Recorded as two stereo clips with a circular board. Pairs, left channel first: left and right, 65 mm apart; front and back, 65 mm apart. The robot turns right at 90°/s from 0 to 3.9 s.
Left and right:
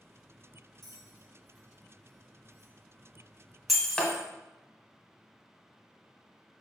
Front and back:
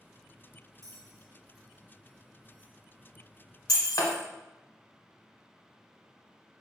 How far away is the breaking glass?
About 0.8 m.